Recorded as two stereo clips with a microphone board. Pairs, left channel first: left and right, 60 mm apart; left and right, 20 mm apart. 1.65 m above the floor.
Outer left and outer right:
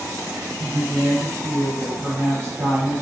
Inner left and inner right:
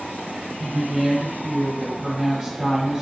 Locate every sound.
0.6 s a woman speaking: 45° right (ahead or behind), 1.0 m